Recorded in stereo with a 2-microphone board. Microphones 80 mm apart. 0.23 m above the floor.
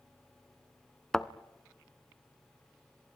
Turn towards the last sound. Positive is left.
turn(degrees=5)  # may be behind; listen again after turning